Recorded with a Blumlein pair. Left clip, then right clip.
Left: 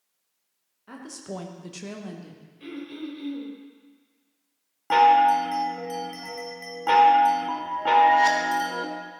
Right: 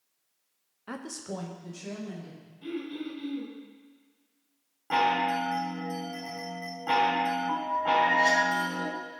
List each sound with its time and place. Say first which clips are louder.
0.9 s a woman speaking: even; 25° right, 1.3 m; by 2.4 s 55° left, 2 m
2.6 s throat clearing: right 1 dB; 45° left, 4 m
4.9 s a chime: left 9 dB; 65° left, 1.8 m